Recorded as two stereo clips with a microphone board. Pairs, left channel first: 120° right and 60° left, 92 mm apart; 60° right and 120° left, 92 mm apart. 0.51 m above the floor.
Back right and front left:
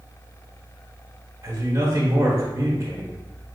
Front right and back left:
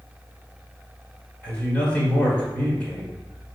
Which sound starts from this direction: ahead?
A man speaking, at 1.4 s.